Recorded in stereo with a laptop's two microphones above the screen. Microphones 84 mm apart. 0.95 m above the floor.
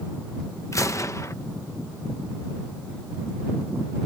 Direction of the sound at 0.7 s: 40° left (ahead or behind).